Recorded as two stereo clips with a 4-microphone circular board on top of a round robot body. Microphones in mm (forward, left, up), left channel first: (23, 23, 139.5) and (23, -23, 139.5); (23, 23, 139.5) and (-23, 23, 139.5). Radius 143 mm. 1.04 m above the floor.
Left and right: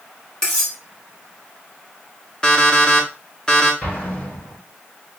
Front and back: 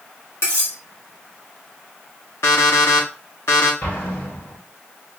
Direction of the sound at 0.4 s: 15° left.